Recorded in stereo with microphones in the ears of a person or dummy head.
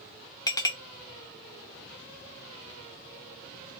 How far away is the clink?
About 0.7 m.